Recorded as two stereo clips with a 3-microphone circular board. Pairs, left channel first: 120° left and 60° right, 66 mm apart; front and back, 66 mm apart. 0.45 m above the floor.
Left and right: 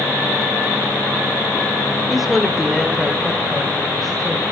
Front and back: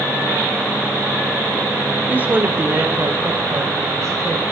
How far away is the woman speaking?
About 1.5 m.